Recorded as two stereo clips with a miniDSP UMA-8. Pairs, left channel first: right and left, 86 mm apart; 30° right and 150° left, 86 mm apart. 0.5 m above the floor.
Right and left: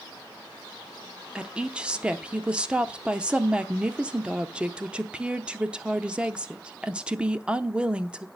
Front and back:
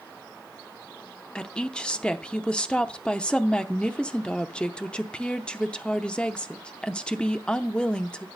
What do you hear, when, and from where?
1.4 s a woman speaking: 30° left, 0.7 m